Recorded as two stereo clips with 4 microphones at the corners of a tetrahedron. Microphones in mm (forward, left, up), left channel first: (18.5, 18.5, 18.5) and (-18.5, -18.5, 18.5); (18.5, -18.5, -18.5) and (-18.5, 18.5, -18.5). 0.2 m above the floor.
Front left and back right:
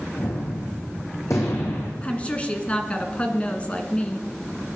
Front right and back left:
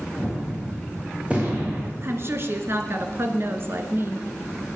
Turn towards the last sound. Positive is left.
turn(degrees=110)